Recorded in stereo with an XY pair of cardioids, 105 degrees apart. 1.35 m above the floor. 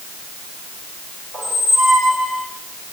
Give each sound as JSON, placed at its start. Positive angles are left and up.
{"t": 1.3, "sound": "a squeak", "azimuth_deg": -40, "distance_m": 3.5}